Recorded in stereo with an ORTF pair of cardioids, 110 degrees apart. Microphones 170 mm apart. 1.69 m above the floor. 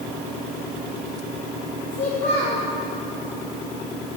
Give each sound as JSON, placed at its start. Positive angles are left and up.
{"t": 1.9, "sound": "a child speaking", "azimuth_deg": 60, "distance_m": 2.0}